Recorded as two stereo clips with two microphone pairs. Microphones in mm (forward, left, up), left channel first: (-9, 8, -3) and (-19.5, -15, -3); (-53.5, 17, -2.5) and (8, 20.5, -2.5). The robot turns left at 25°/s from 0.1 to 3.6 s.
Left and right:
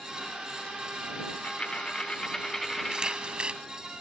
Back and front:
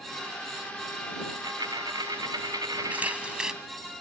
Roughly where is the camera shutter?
Ahead right.